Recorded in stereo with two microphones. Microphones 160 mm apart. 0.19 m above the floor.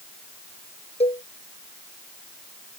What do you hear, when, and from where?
1.0 s a cowbell: 40° left (ahead or behind)